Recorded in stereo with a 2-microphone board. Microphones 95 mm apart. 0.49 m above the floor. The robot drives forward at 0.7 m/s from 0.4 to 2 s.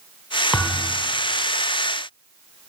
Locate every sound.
0.5 s a thud: 5° left (ahead or behind), 0.6 m